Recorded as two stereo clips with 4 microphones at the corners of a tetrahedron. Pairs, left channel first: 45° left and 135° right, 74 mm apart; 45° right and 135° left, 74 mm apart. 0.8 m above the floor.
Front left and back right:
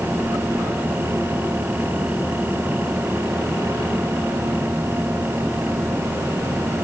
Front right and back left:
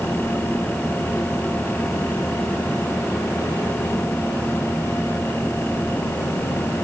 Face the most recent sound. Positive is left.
No sound to turn to.